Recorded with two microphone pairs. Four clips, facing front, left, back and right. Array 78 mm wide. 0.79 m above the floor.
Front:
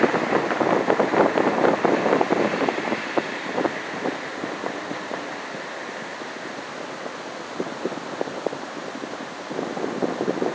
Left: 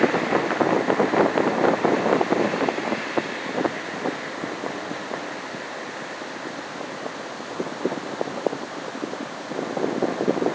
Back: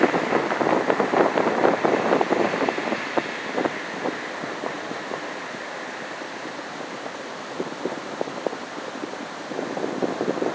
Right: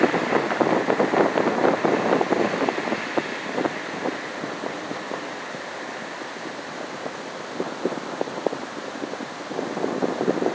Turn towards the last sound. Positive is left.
No sound to turn to.